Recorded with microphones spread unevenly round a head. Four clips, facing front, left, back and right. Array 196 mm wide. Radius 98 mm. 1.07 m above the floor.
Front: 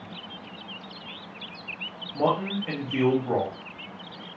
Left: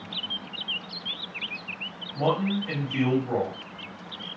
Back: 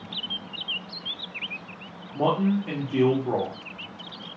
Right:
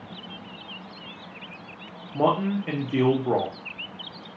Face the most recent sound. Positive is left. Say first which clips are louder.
# right 3 dB, back 2 dB
turn(degrees=-120)